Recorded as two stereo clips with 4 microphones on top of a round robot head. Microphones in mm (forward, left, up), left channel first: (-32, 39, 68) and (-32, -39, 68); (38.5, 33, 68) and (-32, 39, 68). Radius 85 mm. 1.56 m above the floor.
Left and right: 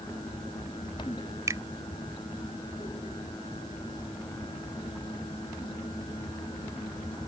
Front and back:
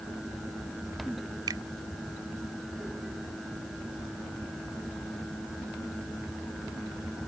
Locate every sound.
1.5 s a finger snap: 140° right